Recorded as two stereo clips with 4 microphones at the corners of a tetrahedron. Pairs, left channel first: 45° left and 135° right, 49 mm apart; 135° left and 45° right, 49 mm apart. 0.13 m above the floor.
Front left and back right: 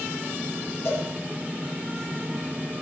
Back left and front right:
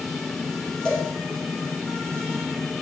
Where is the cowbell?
70° left, 4 m.